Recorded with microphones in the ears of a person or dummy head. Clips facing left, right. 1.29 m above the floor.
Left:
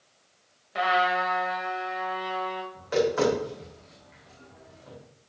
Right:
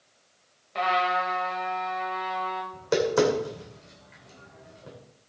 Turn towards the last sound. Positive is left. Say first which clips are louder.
# right 1 dB
turn(degrees=-55)  # may be behind; listen again after turning